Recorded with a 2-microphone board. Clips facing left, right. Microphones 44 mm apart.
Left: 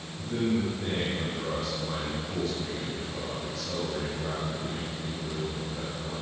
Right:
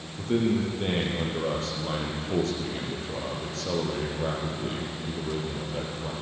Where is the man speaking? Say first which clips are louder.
Right 3 dB; 75° right (ahead or behind), 5 m.